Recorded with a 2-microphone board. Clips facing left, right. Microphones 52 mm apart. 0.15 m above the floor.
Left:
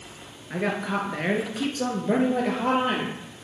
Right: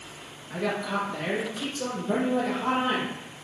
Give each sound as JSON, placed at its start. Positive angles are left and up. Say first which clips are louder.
{"t": 0.5, "sound": "a woman speaking", "louder": "left 2 dB", "side_deg": 35, "distance_m": 2.0}